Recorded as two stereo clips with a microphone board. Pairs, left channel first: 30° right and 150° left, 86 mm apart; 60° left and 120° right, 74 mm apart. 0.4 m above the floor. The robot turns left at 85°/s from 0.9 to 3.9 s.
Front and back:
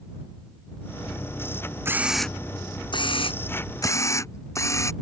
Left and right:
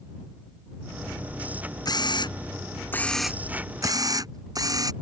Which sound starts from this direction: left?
A camera shutter, at 1.9 s.